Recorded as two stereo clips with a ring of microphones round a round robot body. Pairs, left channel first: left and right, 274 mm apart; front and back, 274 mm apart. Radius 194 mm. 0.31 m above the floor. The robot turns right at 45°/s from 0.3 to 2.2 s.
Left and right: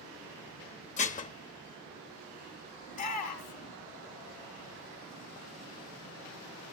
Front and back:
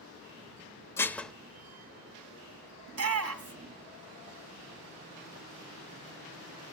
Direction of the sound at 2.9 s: 155° left.